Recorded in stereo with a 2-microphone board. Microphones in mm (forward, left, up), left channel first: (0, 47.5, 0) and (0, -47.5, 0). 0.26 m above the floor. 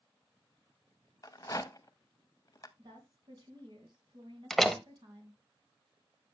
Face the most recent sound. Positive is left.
turn(degrees=5)  # may be behind; listen again after turning